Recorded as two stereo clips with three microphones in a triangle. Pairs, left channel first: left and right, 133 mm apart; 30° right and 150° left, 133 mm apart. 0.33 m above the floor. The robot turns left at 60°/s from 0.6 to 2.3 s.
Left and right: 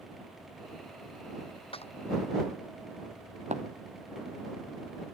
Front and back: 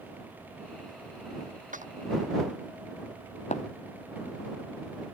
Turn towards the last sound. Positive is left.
turn(degrees=-60)